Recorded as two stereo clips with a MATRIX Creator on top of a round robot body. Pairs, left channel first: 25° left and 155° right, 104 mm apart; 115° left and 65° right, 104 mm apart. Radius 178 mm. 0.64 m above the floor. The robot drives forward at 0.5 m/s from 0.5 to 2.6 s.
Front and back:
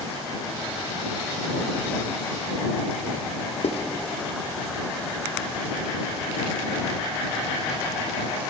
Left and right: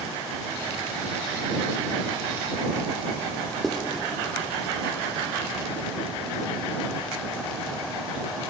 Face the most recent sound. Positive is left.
turn(degrees=25)